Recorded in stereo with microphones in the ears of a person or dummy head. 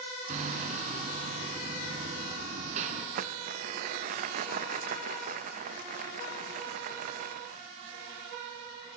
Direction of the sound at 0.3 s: 45° right (ahead or behind).